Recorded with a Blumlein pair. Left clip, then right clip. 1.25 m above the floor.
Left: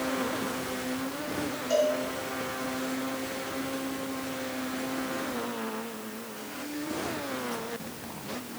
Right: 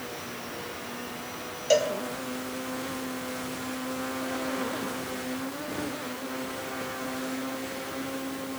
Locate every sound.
1.7 s a cowbell: 50° right, 0.8 m